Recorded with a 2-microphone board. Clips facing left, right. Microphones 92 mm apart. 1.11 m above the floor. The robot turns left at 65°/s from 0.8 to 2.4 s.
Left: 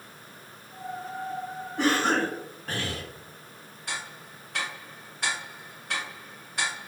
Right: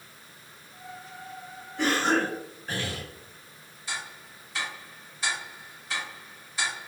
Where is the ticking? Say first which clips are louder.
Even; 65° left (ahead or behind), 1.1 m.